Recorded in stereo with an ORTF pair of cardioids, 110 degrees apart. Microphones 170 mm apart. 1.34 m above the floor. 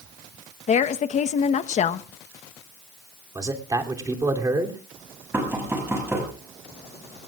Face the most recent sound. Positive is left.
turn(degrees=-15)